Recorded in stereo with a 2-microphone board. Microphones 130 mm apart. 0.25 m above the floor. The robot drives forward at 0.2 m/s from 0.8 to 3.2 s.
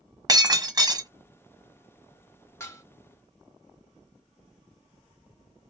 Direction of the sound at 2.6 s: 20° left (ahead or behind).